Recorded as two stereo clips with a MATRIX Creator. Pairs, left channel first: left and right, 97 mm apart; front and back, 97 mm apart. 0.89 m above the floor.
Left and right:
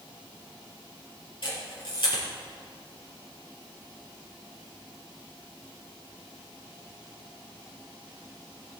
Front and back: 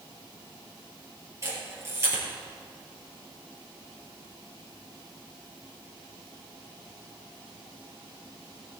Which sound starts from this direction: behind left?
A camera shutter, at 1.4 s.